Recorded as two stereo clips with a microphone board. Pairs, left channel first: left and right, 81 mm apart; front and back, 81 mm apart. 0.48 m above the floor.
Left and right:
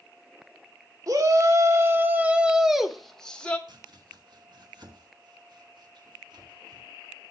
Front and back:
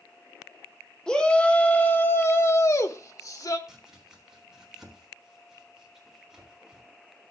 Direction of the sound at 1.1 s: 80° right.